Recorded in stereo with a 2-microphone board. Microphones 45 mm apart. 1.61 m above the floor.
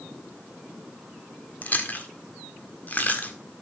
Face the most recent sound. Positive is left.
turn(degrees=40)  # may be behind; listen again after turning